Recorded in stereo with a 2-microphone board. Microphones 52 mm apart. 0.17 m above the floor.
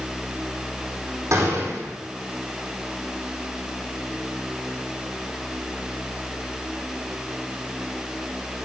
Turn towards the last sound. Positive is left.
turn(degrees=-80)